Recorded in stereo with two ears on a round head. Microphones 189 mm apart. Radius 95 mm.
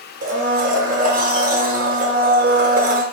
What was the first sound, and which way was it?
A blender, 40° right (ahead or behind).